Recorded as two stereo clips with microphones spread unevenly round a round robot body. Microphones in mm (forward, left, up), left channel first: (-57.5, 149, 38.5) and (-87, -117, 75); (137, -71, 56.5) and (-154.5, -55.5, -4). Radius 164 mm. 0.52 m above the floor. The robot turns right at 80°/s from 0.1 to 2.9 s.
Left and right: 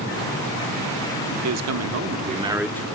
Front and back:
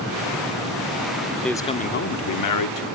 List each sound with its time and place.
1.4 s a man speaking: 100° right, 1.1 m; by 2.9 s 15° left, 1.1 m